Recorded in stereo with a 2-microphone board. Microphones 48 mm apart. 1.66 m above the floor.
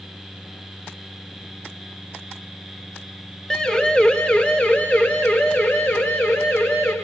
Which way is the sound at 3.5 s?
15° left (ahead or behind).